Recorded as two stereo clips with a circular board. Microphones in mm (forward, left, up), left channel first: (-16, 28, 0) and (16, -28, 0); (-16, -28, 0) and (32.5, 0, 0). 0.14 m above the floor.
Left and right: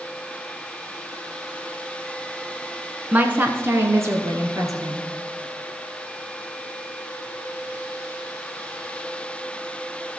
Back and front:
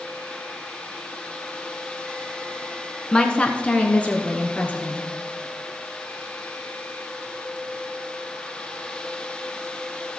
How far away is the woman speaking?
About 1.1 m.